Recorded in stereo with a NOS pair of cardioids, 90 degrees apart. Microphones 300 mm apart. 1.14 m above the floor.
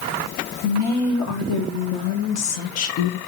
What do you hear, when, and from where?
0.6 s a woman speaking: 65° left, 1.9 m